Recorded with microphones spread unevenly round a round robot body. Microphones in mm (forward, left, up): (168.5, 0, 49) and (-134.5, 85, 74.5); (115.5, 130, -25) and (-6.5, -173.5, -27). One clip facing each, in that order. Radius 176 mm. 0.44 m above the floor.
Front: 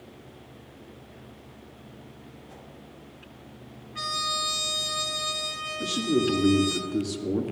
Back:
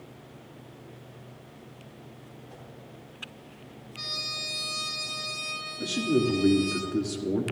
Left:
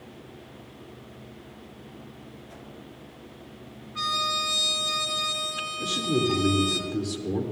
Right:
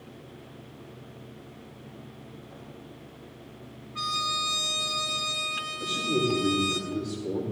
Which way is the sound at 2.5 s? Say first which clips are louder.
Even, left 1 dB; 25° left.